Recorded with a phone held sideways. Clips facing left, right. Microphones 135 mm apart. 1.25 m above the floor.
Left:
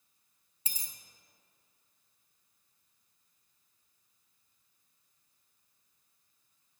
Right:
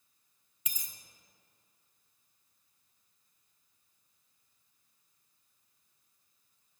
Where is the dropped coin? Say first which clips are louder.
Left 2 dB; 30° left (ahead or behind), 0.7 m.